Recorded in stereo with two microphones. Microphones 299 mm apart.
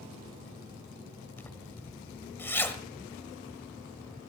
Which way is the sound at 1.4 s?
5° left (ahead or behind).